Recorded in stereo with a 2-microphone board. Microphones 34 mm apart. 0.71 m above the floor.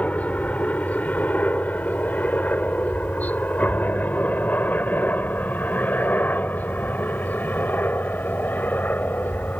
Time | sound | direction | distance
0.0 | a helicopter | 45° left (ahead or behind) | ?